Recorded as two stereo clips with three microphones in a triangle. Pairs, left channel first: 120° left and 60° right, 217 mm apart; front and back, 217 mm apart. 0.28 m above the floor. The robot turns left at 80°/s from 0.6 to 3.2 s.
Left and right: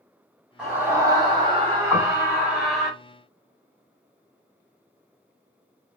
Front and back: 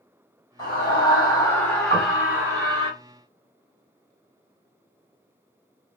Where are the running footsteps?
No running footsteps in this recording.